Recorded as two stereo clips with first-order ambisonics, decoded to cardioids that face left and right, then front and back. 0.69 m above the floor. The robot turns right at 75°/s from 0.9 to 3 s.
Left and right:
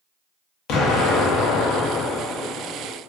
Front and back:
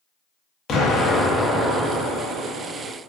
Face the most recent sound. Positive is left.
turn(degrees=-145)